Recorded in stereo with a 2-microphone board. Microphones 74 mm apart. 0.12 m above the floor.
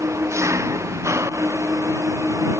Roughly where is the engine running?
Right.